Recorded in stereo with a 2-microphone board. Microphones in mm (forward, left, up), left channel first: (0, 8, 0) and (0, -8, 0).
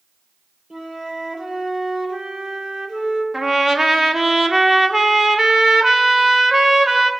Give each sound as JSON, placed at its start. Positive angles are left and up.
{"t": 0.7, "sound": "a flute", "side_deg": -75, "distance_m": 3.5}
{"t": 3.3, "sound": "a trumpet", "side_deg": -35, "distance_m": 1.4}